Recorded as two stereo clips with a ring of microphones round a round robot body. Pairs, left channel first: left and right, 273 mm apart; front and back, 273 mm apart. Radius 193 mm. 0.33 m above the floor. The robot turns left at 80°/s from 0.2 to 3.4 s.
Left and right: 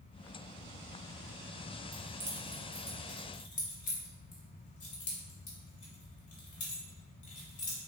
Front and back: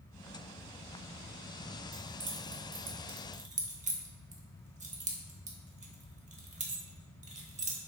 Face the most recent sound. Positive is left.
turn(degrees=135)